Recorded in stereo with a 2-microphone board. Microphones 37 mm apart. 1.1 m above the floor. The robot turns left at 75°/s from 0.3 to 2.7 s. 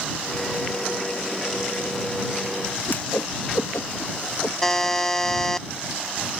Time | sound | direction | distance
2.9 | a whoosh | 70° left (ahead or behind) | ?
4.6 | a buzzer | 10° left (ahead or behind) | ?